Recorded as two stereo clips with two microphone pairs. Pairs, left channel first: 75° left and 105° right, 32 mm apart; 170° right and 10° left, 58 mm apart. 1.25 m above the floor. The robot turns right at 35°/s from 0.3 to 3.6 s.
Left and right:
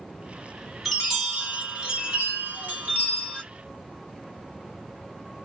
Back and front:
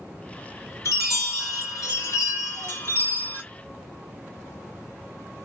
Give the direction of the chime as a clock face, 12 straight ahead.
6 o'clock.